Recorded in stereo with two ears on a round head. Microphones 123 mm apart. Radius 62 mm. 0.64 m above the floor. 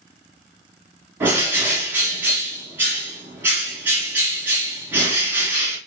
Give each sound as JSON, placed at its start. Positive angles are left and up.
{"t": 1.2, "sound": "a bird", "side_deg": -15, "distance_m": 1.6}